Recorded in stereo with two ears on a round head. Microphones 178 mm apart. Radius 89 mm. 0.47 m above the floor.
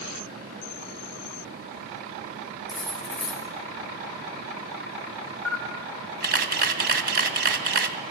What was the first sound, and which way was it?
Cutlery clinking, centre (ahead or behind).